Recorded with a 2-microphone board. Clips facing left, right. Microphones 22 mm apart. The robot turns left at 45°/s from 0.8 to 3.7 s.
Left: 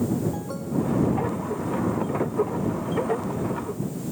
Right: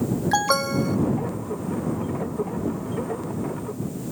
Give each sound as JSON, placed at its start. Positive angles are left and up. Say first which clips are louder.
{"t": 0.3, "sound": "an alarm", "louder": "right 8 dB", "side_deg": -65}